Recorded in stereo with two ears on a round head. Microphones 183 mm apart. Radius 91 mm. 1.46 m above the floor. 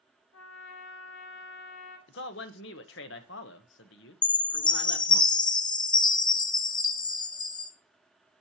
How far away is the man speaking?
About 0.9 m.